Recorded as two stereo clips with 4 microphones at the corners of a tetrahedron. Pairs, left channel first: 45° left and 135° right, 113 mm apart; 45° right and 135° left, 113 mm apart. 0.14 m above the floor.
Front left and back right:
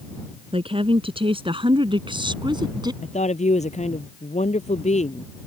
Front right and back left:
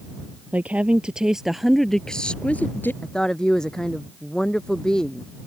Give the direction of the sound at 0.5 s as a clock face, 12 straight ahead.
5 o'clock.